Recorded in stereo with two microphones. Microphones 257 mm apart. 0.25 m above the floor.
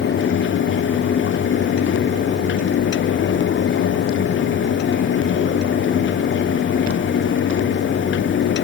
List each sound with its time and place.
Only background noise.